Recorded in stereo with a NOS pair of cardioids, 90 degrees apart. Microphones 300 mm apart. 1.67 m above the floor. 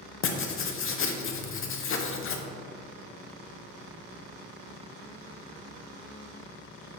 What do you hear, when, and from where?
0.2 s writing: 45° left, 0.9 m